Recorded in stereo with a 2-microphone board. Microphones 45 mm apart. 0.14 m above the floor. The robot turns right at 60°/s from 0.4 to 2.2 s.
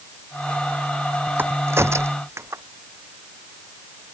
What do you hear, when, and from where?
1.4 s a crack: 50° right (ahead or behind); by 2.6 s 75° right (ahead or behind)